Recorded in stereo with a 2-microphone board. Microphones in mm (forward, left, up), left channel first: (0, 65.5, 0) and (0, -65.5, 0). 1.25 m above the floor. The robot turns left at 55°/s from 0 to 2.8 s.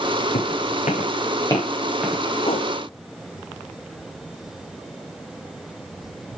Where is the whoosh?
50° left (ahead or behind), 1.5 m; by 2.7 s 35° left (ahead or behind), 1.5 m.